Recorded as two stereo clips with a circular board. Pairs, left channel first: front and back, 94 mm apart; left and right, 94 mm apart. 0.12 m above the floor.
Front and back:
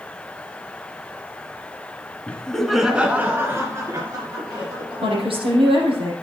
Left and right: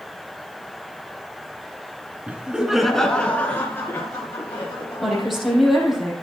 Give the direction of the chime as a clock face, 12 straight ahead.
No chime in this recording.